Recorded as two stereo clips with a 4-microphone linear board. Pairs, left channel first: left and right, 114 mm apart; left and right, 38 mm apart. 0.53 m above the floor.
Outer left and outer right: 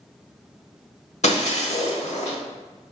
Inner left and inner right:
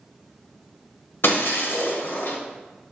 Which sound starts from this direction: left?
Breaking glass, at 1.2 s.